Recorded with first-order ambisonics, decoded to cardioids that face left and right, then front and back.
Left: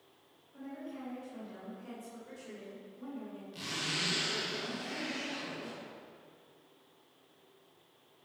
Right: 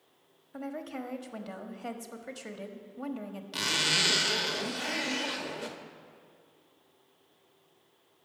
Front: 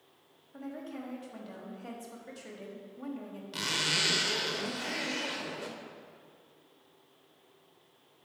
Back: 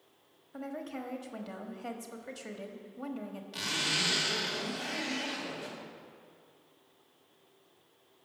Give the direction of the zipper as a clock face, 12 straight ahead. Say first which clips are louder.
Right 9 dB, front 1 dB; 2 o'clock.